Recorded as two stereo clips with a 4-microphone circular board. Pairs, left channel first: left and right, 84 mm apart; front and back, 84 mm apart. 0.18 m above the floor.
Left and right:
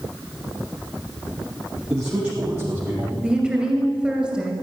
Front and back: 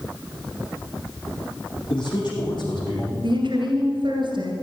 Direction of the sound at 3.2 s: 175° right.